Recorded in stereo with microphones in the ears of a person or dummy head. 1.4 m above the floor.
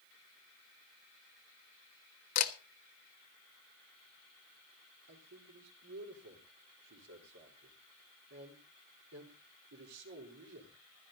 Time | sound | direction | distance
2.4 | a camera shutter | 50° left (ahead or behind) | 1.3 m
5.1 | a man speaking | 75° right (ahead or behind) | 4.5 m